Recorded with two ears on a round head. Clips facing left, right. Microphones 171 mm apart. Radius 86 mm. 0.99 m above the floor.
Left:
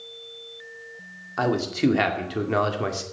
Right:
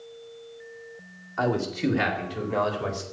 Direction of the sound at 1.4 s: 45° left (ahead or behind).